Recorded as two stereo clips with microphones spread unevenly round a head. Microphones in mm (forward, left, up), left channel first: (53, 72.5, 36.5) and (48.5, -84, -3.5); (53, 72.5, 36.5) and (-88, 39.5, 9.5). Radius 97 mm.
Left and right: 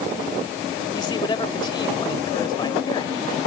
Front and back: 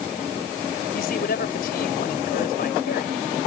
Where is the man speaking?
30° left.